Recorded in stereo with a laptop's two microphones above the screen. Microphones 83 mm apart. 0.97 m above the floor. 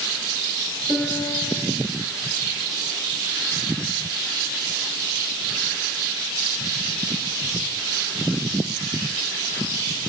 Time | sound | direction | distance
0.9 | a piano | 5° left (ahead or behind) | 5.5 m